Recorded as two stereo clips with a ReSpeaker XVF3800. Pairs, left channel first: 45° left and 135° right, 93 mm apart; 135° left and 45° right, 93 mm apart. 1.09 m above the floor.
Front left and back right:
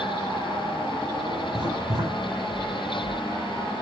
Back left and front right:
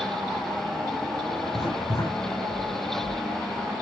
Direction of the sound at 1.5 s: 175° right.